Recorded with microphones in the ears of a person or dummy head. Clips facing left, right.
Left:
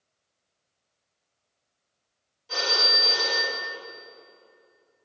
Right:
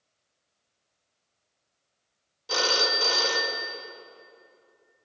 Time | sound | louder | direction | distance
2.5 | a phone ringing | right 3 dB | 70° right (ahead or behind) | 0.8 m